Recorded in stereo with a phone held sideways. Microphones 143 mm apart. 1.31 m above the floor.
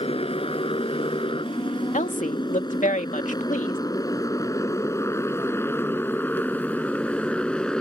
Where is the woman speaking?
65° left (ahead or behind).